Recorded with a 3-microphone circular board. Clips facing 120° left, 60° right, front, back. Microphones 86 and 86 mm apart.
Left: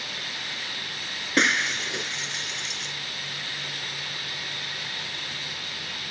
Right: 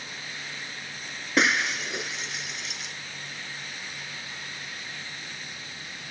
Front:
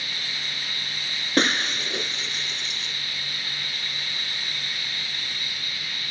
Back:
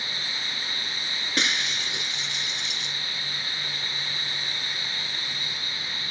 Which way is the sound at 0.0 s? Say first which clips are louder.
Left 3 dB, even; 120° left.